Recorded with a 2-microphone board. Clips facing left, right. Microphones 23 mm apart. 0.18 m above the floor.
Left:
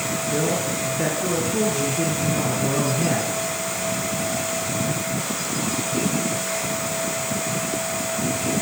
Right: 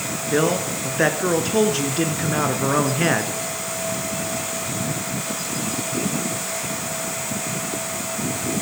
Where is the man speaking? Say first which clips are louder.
Right 5 dB; 50° right (ahead or behind), 2 m.